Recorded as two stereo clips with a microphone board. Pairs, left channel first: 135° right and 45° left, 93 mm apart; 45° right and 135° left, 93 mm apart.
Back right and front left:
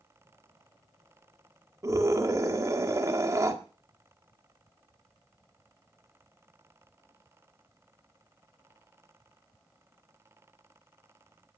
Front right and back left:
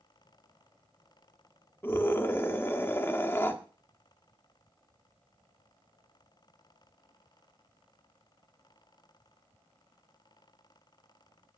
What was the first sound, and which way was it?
A scream, 10° left.